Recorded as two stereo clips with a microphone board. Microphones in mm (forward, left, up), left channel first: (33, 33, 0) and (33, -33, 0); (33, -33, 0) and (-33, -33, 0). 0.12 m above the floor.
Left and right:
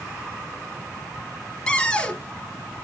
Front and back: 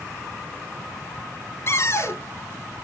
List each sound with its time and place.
1.7 s a cupboard door: 15° left, 0.9 m